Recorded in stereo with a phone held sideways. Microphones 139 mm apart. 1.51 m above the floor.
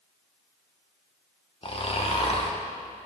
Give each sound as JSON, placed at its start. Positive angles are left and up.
{"t": 1.6, "sound": "snoring", "side_deg": 40, "distance_m": 0.9}